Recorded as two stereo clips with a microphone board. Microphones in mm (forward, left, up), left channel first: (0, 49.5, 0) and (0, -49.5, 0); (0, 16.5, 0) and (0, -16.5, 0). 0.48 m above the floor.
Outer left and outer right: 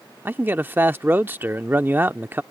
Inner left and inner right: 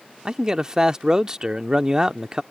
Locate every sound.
0.2 s a man speaking: 20° right (ahead or behind)